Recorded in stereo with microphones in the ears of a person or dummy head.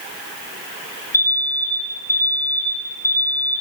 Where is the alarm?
20° left (ahead or behind), 4 m.